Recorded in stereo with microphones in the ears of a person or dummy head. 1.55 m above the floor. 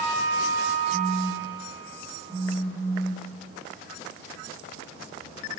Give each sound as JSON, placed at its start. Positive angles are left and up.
{"t": 0.9, "sound": "a phone buzzing", "side_deg": 25, "distance_m": 1.9}